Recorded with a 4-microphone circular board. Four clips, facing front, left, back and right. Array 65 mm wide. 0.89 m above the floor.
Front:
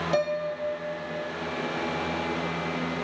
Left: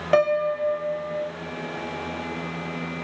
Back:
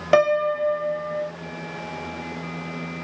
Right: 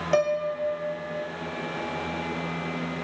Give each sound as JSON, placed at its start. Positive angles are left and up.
{"t": 0.1, "sound": "a piano", "azimuth_deg": 160, "distance_m": 0.7}